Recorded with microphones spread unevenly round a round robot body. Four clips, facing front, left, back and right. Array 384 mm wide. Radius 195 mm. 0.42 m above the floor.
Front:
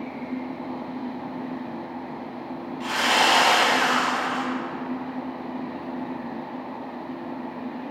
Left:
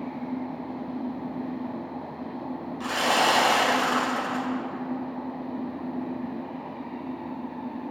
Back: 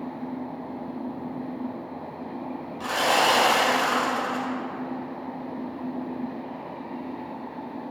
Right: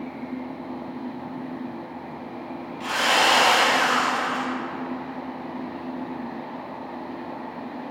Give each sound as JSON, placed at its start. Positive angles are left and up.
{"t": 2.8, "sound": "sawing", "azimuth_deg": 150, "distance_m": 2.5}